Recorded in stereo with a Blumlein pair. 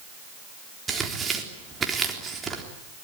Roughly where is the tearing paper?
Ahead.